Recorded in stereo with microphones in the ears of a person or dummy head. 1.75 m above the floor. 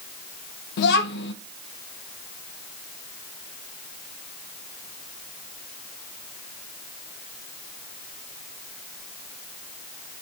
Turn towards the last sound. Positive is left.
turn(degrees=55)  # may be behind; listen again after turning